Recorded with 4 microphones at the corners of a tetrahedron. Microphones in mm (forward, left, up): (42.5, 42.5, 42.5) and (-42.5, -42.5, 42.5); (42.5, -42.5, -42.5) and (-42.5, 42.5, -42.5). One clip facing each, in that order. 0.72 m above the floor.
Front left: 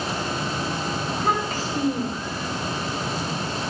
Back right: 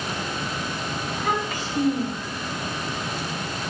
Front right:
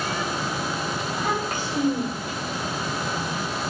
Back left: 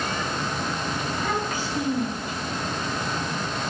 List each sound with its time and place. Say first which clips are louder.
1.1 s a child speaking: front left 1 dB, front right 1 dB; 5° right, 2.5 m